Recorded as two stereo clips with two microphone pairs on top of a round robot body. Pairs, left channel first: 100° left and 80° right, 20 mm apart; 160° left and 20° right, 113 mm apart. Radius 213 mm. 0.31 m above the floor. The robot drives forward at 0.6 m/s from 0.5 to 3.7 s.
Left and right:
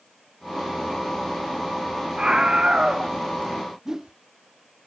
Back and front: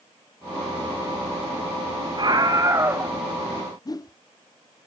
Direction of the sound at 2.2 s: 50° right.